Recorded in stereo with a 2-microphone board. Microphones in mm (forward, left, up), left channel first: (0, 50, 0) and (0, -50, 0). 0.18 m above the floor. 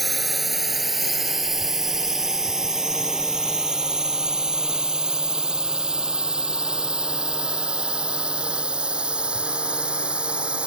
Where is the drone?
Centre (ahead or behind); by 10.7 s 10° right (ahead or behind).